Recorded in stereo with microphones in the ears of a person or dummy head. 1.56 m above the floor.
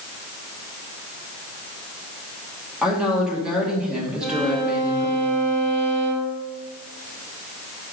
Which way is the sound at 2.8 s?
Centre (ahead or behind).